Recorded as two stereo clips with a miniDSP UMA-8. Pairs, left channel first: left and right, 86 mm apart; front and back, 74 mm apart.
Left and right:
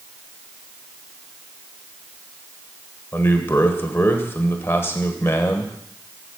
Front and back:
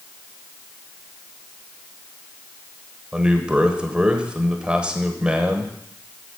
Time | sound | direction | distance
3.1 | a man speaking | 115° left | 1.1 m